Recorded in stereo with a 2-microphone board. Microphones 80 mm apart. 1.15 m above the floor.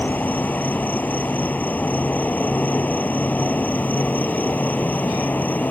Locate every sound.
0.0 s an insect: 20° left (ahead or behind)